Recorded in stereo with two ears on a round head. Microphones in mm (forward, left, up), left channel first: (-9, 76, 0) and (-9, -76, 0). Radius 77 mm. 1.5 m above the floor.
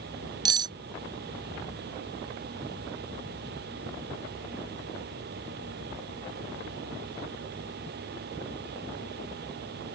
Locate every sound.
0.5 s cutlery clinking: 25° right (ahead or behind)